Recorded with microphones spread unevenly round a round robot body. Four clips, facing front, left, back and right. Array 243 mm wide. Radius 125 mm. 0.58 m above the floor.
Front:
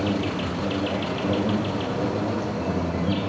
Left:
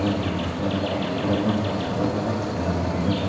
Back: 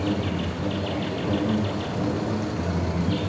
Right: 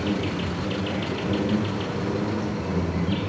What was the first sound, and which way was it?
An insect, 55° left.